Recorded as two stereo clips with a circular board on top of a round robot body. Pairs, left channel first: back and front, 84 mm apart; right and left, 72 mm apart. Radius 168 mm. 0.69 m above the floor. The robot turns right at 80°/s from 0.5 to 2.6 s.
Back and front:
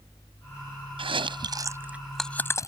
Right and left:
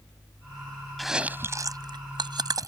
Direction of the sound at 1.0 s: Straight ahead.